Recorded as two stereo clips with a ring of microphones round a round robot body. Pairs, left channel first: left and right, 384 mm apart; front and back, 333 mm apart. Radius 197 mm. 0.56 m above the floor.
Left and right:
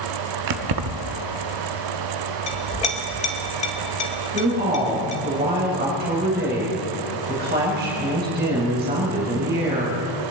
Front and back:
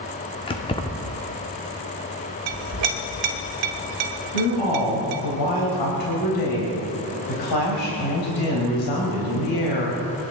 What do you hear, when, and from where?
0.5 s keys jangling: 75° right, 0.6 m
2.5 s a clink: 165° left, 1.6 m
4.3 s a woman speaking: 25° right, 3.5 m